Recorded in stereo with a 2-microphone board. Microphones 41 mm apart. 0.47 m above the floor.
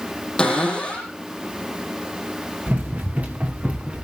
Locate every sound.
0.4 s a cupboard door: 15° left (ahead or behind), 6.5 m
2.7 s running footsteps: 45° right (ahead or behind), 2.5 m; by 4.0 s 25° right (ahead or behind), 2.5 m